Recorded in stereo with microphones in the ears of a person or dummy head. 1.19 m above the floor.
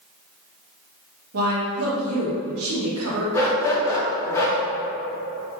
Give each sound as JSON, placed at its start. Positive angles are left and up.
{"t": 1.3, "sound": "a woman speaking", "side_deg": -80, "distance_m": 0.9}
{"t": 3.3, "sound": "a dog barking", "side_deg": 15, "distance_m": 0.7}